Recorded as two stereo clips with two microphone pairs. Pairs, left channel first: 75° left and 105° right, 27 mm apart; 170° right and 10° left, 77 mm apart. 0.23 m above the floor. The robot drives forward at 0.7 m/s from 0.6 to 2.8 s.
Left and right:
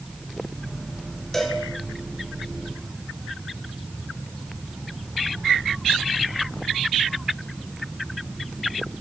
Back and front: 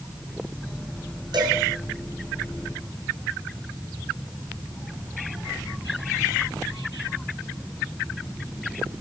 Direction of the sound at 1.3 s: Straight ahead.